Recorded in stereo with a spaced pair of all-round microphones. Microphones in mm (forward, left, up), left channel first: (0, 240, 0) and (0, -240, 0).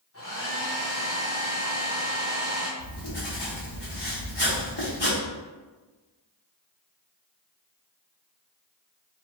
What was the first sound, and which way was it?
A hair dryer, 25° left (ahead or behind).